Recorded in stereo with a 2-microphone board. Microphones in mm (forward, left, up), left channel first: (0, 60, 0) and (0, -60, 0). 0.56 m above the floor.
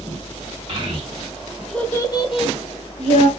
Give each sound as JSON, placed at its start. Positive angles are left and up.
{"t": 0.7, "sound": "a child speaking", "side_deg": -45, "distance_m": 0.8}